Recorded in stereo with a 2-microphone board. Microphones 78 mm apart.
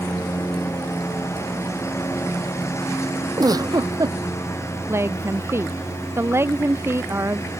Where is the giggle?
55° right (ahead or behind).